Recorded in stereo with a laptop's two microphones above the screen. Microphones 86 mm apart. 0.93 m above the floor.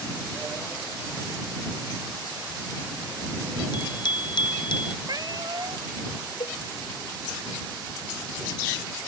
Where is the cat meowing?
50° right (ahead or behind).